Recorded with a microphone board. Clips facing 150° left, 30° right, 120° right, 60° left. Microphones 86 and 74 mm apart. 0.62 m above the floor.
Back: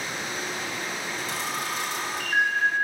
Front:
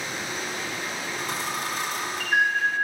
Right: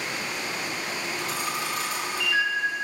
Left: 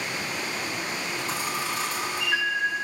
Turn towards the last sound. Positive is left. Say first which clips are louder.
# front 2 dB, even
turn(degrees=5)